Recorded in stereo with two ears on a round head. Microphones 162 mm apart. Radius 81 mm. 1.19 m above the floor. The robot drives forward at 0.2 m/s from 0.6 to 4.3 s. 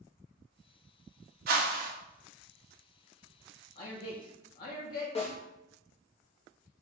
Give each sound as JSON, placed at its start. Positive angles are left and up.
{"t": 1.5, "sound": "a whoosh", "side_deg": -55, "distance_m": 0.7}
{"t": 3.8, "sound": "a man speaking", "side_deg": 55, "distance_m": 1.1}
{"t": 5.2, "sound": "a snare drum", "side_deg": 35, "distance_m": 1.3}